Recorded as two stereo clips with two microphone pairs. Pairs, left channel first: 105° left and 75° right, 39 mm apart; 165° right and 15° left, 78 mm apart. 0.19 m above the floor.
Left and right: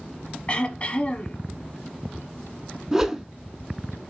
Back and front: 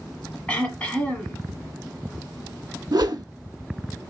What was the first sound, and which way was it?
Throat clearing, 135° left.